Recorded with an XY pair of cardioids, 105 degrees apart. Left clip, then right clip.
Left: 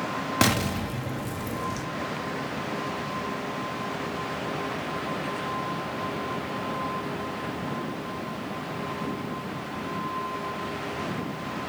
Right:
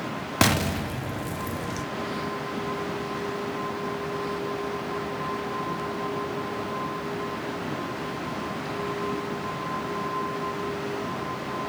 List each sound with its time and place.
0.4 s an explosion: 10° right, 0.7 m